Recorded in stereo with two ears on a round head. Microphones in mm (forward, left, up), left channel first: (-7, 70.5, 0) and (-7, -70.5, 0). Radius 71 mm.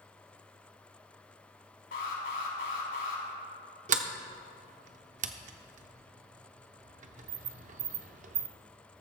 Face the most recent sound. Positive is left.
turn(degrees=-45)  # may be behind; listen again after turning